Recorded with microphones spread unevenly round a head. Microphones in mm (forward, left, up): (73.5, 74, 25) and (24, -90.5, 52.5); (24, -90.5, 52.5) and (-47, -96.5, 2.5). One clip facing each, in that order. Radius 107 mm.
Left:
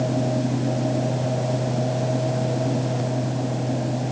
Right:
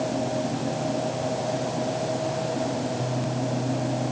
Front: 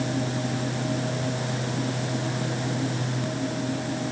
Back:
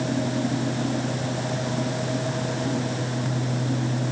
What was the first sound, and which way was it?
Only background noise.